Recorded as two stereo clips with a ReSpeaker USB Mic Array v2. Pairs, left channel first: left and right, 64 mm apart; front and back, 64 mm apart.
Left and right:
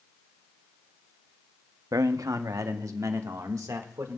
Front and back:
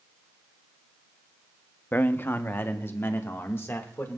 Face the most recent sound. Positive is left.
turn(degrees=-55)